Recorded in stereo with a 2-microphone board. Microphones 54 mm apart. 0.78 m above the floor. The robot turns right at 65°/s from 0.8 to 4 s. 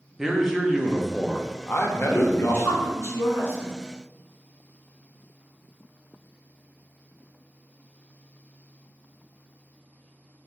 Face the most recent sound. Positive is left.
turn(degrees=140)